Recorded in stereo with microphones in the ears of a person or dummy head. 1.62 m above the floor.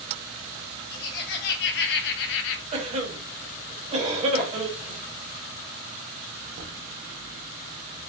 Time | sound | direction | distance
0.9 | laughter | 55° left (ahead or behind) | 1.4 m
2.7 | a cough | 35° right (ahead or behind) | 1.0 m
4.4 | tapping | 80° left | 1.1 m
6.5 | knocking | 50° right (ahead or behind) | 1.0 m